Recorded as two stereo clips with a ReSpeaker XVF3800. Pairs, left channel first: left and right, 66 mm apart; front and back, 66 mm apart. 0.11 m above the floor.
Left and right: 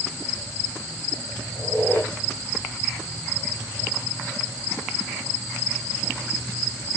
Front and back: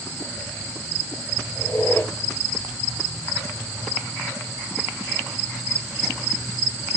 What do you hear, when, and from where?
1.6 s a squeak: 35° left, 2.5 m